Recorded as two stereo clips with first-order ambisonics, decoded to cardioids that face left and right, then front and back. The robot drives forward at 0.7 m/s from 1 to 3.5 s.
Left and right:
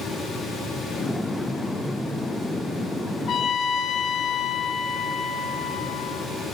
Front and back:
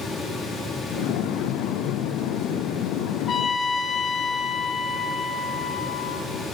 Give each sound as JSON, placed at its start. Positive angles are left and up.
{"t": 3.3, "sound": "a trumpet", "azimuth_deg": 50, "distance_m": 1.4}